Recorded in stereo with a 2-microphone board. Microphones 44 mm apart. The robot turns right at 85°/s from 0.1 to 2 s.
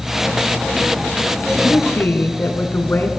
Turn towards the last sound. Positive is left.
turn(degrees=110)